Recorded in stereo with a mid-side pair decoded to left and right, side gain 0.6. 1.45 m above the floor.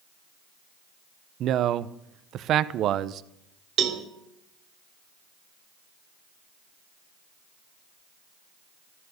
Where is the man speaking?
55° right, 0.9 m.